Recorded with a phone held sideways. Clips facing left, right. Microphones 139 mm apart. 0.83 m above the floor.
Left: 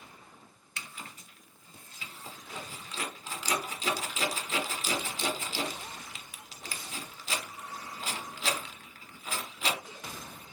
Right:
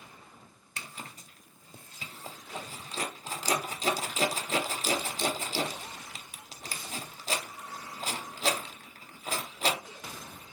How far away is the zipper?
About 0.7 m.